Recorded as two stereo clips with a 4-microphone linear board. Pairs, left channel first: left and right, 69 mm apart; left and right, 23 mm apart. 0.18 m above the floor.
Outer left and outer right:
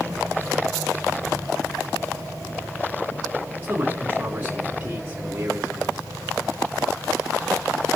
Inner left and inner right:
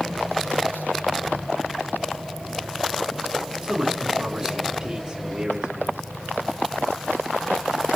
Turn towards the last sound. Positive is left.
turn(degrees=-20)  # may be behind; listen again after turning